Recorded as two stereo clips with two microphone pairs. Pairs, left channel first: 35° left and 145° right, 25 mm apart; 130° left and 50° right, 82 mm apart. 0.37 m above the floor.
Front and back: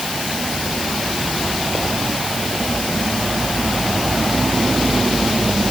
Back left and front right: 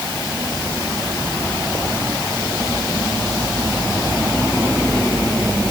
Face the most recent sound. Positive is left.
No sound to turn to.